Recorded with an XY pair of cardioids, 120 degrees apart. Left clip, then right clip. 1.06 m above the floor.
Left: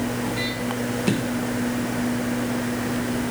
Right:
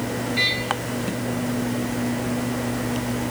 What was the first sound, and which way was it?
Only background noise.